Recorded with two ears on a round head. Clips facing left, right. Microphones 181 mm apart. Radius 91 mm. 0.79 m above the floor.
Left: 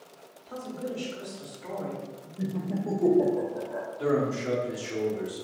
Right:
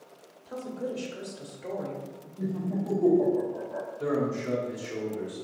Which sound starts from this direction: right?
A woman speaking, at 0.5 s.